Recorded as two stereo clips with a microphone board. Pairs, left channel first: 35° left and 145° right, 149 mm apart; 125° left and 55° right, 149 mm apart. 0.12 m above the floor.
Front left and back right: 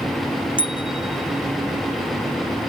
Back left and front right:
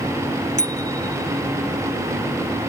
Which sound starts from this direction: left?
A bicycle bell, at 0.6 s.